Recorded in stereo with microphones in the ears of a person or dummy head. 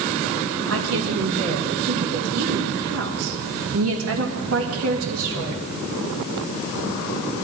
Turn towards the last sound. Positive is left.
turn(degrees=-80)